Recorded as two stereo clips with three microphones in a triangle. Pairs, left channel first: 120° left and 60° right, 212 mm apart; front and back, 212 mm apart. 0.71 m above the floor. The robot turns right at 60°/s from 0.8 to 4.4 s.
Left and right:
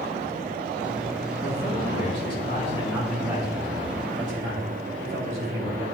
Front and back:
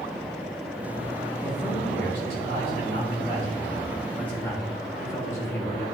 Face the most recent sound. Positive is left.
turn(degrees=-75)